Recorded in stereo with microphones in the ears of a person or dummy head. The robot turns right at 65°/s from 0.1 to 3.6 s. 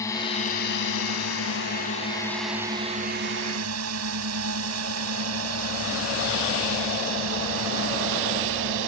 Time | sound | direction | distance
0.0 | a drone | 15° left (ahead or behind) | ?